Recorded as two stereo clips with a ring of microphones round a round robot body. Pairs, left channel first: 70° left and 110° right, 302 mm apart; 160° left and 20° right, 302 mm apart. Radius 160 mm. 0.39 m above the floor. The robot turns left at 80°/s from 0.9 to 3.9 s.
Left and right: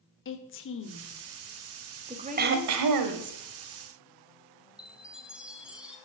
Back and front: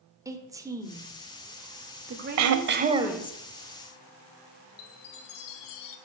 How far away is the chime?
About 1.2 m.